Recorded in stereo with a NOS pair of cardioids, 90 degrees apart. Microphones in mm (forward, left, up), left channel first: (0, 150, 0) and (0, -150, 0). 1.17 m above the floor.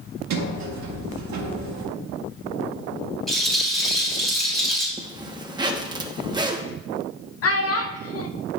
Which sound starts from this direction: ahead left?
A child speaking, at 7.4 s.